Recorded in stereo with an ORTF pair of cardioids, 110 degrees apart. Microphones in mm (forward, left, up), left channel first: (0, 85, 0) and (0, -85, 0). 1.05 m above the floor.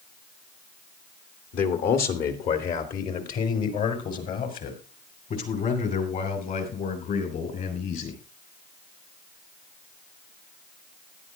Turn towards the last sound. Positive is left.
turn(degrees=55)